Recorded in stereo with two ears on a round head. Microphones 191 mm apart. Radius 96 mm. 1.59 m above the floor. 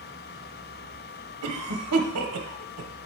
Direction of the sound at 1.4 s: 90° right.